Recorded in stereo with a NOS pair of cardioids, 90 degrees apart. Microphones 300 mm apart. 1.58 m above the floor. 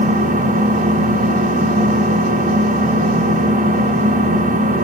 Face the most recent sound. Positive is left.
turn(degrees=-30)